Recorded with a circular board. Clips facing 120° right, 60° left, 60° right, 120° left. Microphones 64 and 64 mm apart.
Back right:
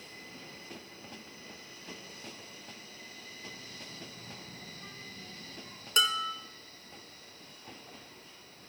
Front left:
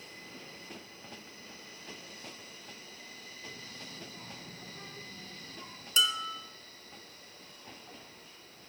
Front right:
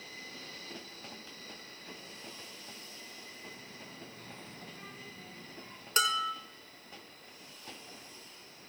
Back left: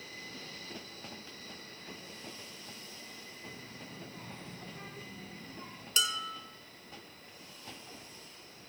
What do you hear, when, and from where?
3.5 s a child speaking: 120° left, 4 m; by 5.9 s 100° left, 4.5 m
6.0 s dishes clattering: 95° right, 0.8 m